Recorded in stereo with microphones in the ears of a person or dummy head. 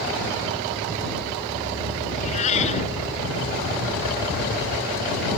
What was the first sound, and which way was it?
A cat meowing, 35° left (ahead or behind).